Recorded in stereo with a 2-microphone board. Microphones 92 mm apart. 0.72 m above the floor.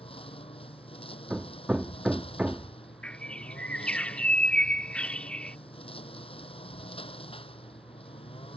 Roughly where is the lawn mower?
Left.